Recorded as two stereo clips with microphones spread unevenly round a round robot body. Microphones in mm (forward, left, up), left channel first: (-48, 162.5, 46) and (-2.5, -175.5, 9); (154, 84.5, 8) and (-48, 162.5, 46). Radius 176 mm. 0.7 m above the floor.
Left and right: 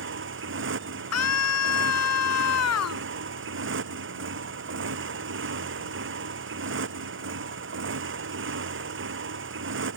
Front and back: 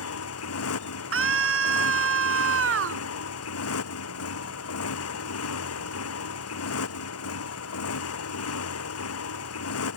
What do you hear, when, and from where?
0.0 s a motorcycle: 25° right
1.1 s a scream: 145° left